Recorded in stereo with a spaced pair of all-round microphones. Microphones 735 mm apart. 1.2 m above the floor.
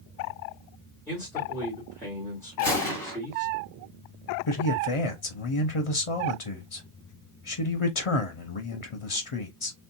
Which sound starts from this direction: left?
A man speaking, at 4.5 s.